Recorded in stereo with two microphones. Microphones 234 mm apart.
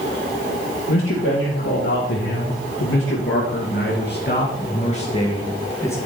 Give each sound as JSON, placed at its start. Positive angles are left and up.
{"t": 0.9, "sound": "a man speaking", "side_deg": 70, "distance_m": 4.0}